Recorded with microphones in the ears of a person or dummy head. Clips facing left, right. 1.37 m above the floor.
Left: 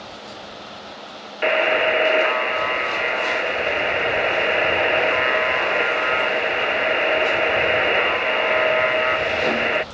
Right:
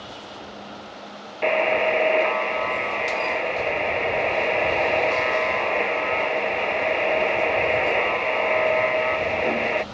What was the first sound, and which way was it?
A buzzer, 10° left (ahead or behind).